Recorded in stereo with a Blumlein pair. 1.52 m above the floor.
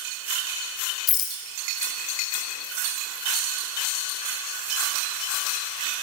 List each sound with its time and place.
1.1 s a rattle: 30° left, 1.1 m